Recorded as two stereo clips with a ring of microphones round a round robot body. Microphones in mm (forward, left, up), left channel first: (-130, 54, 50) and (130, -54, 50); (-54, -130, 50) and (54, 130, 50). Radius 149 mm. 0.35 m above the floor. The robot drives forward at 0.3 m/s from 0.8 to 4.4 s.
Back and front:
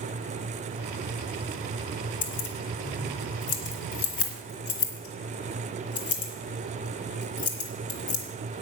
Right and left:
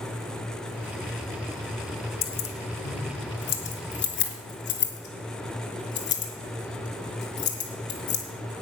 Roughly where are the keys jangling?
Behind right.